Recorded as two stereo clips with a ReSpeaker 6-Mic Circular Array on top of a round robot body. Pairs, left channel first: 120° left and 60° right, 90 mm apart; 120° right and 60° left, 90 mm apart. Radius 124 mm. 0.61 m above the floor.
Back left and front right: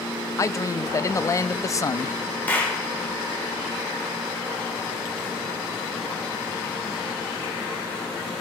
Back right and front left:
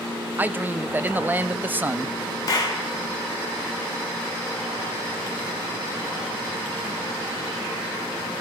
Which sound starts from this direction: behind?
A clap, at 2.5 s.